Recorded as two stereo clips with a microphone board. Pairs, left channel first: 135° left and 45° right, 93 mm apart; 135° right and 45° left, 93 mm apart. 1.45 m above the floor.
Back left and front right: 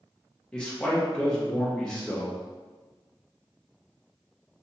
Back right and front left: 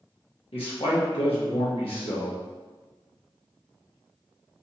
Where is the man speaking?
145° right, 1.5 m.